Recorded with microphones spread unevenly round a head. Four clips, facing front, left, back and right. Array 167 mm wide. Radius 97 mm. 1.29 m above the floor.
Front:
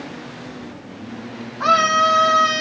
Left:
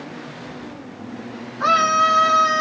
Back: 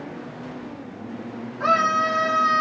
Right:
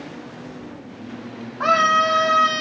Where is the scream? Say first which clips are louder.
Even, front 4 dB; 110° right, 3 m.